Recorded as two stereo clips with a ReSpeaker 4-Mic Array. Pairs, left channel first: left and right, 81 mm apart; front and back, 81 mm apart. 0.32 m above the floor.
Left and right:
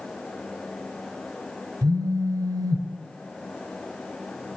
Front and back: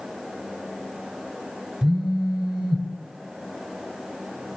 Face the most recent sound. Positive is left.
turn(degrees=-100)